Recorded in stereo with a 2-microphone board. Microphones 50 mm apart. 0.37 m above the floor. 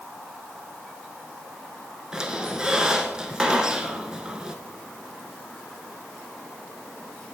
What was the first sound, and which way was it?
A squeak, 15° right (ahead or behind).